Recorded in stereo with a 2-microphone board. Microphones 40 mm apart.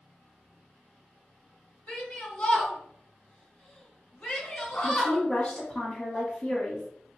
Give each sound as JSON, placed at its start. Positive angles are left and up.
{"t": 1.9, "sound": "a shout", "side_deg": 35, "distance_m": 1.4}
{"t": 4.8, "sound": "a woman speaking", "side_deg": 25, "distance_m": 1.1}